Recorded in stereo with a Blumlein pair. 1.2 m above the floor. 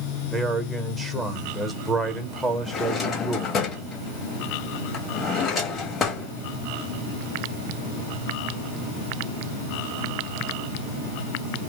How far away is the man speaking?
About 1.1 m.